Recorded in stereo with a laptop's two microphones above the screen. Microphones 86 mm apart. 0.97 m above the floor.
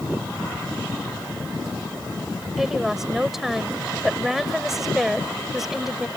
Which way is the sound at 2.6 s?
5° right (ahead or behind).